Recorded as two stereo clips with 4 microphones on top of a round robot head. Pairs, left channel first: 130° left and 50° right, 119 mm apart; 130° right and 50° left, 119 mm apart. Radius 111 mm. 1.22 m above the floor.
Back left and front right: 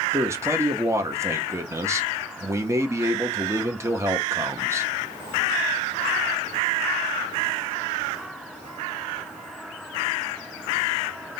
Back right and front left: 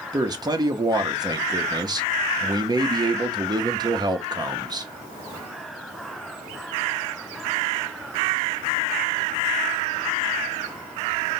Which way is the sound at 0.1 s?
10° left.